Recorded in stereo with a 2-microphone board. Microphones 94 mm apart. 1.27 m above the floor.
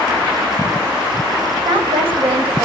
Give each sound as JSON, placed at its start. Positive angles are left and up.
{"t": 1.6, "sound": "a woman speaking", "side_deg": -75, "distance_m": 6.0}